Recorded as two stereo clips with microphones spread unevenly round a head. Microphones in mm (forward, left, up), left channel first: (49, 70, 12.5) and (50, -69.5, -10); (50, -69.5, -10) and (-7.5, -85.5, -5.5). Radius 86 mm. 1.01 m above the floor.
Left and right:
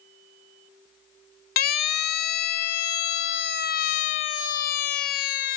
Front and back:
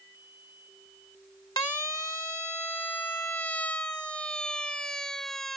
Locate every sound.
1.6 s a siren: 80° left; by 5.6 s 105° left